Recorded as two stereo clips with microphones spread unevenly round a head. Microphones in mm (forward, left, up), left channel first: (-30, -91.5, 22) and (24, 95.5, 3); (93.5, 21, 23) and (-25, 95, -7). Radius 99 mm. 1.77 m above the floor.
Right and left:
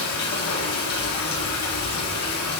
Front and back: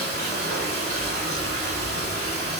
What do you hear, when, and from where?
0.0 s running water: 110° right, 4.5 m